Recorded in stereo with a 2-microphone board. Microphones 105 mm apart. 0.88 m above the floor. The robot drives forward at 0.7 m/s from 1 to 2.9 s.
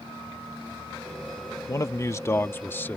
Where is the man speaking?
35° left (ahead or behind); by 3.0 s 20° left (ahead or behind).